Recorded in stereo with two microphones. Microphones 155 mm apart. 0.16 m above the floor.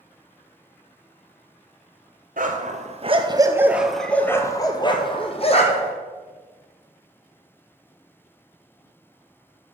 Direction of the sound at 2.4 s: 60° right (ahead or behind).